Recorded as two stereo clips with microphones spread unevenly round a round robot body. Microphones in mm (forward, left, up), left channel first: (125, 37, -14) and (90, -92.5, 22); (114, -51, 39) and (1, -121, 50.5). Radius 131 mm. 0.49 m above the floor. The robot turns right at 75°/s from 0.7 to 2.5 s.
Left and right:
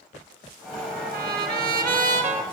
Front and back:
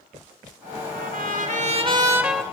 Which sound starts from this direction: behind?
A trumpet, at 0.9 s.